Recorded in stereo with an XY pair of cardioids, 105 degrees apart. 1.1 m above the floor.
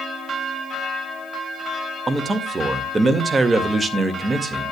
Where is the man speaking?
25° right, 2 m.